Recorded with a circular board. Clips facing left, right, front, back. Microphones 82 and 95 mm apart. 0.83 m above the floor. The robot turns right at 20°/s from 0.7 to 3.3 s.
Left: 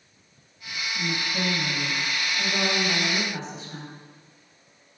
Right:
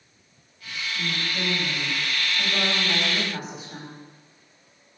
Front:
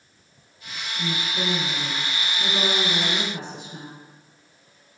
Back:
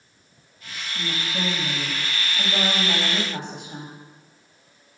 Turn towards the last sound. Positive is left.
turn(degrees=-170)